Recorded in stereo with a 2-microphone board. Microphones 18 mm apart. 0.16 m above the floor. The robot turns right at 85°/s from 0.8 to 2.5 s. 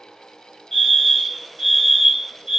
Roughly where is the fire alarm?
Centre.